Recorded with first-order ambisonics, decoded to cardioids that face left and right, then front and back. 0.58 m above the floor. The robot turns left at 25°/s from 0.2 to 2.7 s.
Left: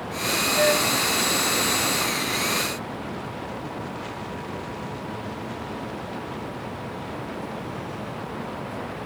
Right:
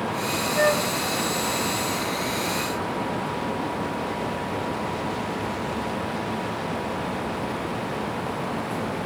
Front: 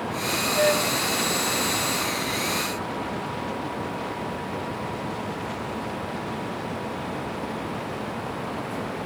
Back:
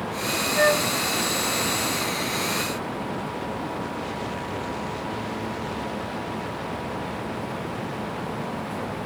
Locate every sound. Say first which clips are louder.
0.5 s a flute: even, back 2 dB; 115° left, 1.6 m; by 0.9 s 105° left, 1.6 m